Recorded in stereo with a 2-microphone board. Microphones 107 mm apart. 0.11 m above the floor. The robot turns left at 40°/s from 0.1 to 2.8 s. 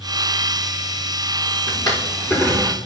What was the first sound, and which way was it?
A drawer, 45° left (ahead or behind).